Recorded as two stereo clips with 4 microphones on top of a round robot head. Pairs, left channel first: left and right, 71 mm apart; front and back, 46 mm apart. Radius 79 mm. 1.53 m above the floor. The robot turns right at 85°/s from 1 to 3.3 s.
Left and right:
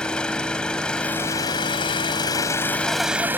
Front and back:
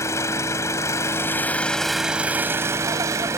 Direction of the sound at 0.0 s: 10° left.